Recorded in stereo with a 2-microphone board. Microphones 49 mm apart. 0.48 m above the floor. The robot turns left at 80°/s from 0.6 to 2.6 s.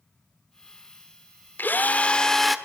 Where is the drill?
75° left, 1.6 m; by 2.6 s 5° right, 1.6 m.